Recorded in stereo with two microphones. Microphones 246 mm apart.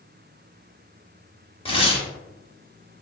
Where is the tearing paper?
20° left (ahead or behind), 0.7 m.